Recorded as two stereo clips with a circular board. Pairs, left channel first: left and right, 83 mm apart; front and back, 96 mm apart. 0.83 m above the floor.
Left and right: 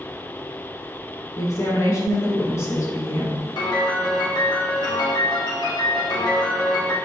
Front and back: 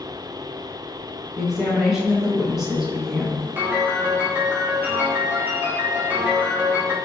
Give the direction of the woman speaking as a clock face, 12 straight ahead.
9 o'clock.